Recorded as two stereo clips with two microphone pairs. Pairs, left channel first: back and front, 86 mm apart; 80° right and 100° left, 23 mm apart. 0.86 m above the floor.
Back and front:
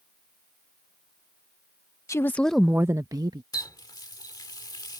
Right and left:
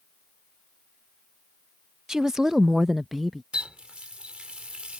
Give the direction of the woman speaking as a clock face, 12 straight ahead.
7 o'clock.